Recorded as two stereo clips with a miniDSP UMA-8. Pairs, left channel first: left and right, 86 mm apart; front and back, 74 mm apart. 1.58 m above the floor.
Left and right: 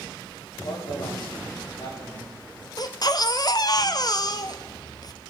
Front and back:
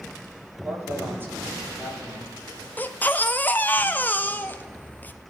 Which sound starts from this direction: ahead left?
A baby crying, at 2.8 s.